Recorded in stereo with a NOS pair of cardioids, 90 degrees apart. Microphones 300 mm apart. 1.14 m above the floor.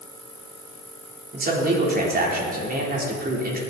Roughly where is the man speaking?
Ahead right.